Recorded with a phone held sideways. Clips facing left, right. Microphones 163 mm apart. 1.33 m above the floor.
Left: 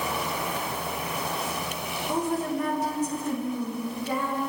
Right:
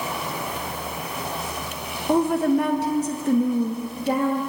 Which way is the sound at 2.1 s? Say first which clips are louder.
Right 9 dB; 65° right (ahead or behind).